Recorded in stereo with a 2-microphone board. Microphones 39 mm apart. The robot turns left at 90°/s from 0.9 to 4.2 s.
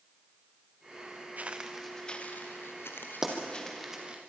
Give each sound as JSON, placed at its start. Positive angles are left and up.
{"t": 1.4, "sound": "footsteps", "side_deg": -45, "distance_m": 1.8}
{"t": 3.2, "sound": "a pop", "side_deg": -15, "distance_m": 3.5}